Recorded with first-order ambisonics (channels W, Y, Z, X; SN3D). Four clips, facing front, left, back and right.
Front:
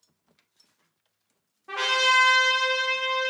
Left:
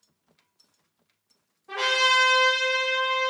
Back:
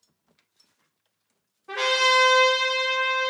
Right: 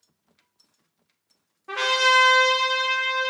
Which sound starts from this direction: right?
A trumpet, at 1.7 s.